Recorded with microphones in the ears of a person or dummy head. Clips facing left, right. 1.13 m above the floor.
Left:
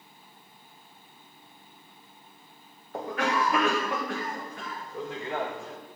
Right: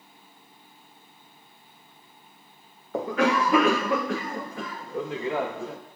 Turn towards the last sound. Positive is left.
turn(degrees=-55)  # may be behind; listen again after turning